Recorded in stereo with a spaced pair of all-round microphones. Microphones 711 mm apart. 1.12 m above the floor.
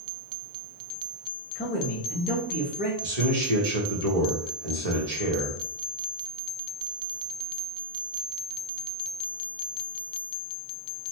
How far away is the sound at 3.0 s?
About 1.4 m.